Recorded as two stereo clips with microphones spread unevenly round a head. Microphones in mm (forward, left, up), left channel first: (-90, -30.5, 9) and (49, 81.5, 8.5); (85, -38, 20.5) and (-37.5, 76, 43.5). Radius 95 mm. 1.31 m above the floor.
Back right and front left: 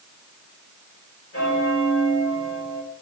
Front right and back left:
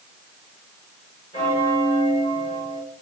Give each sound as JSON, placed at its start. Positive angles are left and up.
{"t": 1.3, "sound": "a bell", "azimuth_deg": -105, "distance_m": 4.5}